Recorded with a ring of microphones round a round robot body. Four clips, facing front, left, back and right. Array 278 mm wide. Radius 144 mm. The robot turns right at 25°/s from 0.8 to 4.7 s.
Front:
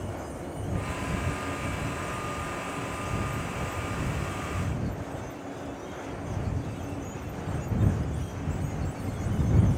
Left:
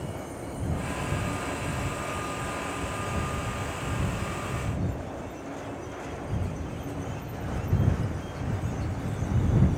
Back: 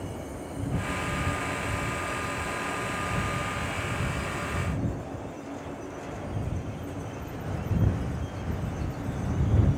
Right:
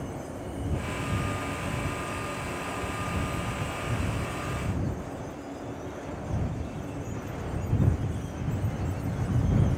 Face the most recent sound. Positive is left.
No sound to turn to.